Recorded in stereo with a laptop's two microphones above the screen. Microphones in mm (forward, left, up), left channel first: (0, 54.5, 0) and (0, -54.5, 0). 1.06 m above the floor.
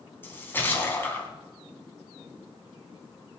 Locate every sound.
0.2 s a splash: 20° left (ahead or behind), 3 m